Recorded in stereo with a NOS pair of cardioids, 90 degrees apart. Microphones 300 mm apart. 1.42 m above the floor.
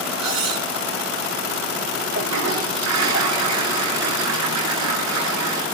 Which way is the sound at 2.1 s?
70° right.